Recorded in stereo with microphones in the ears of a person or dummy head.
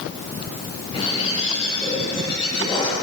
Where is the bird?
30° left (ahead or behind), 9 m.